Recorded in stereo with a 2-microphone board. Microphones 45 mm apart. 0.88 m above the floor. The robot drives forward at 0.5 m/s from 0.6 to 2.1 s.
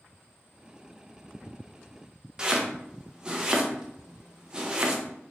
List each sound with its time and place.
2.4 s chopping: 20° right (ahead or behind), 0.5 m